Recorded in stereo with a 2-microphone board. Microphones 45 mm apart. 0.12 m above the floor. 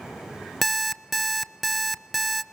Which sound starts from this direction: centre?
An alarm clock, at 0.6 s.